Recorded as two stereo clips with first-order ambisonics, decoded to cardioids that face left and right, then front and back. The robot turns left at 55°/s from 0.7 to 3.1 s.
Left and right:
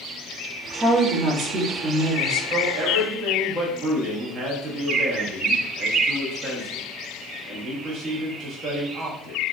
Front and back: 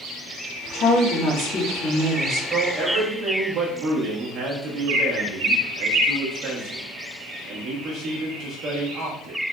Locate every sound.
0.7 s a woman speaking: 5° left, 1.7 m; by 2.4 s 90° right, 1.7 m
2.5 s a man speaking: 100° right, 1.2 m; by 9.4 s 135° right, 1.2 m